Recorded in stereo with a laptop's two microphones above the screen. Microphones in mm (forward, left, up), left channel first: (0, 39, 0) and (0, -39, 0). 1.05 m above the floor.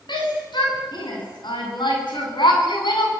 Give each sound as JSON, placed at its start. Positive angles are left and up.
{"t": 0.1, "sound": "a shout", "side_deg": 75, "distance_m": 9.5}